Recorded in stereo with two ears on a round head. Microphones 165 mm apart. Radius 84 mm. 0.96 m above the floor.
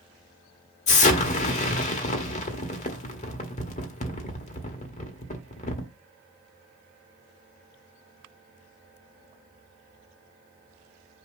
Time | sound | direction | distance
0.9 | an explosion | 40° left (ahead or behind) | 1.9 m